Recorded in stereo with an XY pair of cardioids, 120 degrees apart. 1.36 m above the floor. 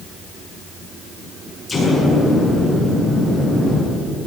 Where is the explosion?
15° left, 9.5 m.